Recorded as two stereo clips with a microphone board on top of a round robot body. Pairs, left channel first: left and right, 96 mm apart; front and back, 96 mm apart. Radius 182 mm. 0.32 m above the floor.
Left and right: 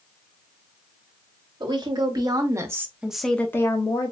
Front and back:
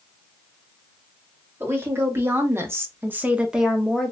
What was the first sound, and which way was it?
A woman speaking, 120° right.